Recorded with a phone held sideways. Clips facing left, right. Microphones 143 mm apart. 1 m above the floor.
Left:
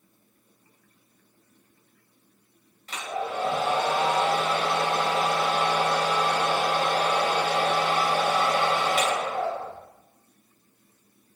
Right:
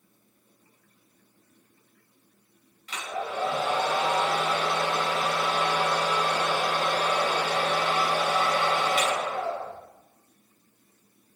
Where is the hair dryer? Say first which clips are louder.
Left 2 dB; 45° left (ahead or behind), 3.5 m.